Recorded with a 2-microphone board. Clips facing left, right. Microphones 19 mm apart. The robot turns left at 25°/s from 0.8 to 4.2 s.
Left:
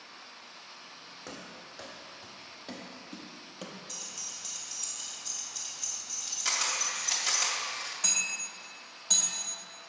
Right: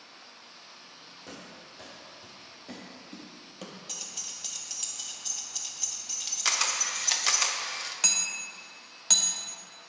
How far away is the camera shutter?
About 0.8 m.